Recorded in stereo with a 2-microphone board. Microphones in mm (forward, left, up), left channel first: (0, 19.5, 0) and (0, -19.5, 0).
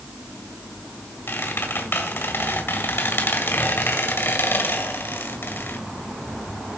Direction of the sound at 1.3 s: 75° left (ahead or behind).